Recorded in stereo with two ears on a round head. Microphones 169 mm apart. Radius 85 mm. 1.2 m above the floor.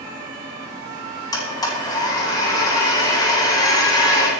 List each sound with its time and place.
1.3 s a blender: 20° left (ahead or behind), 9.5 m